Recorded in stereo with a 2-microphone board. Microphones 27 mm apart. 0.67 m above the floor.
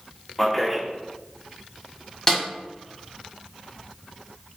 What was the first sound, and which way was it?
A man speaking, centre (ahead or behind).